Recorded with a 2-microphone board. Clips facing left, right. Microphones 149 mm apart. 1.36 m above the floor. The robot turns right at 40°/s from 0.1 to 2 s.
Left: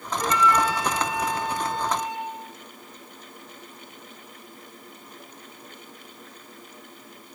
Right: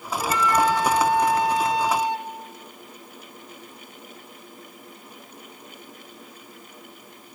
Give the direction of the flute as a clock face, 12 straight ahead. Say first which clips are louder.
Right 1 dB; 5 o'clock.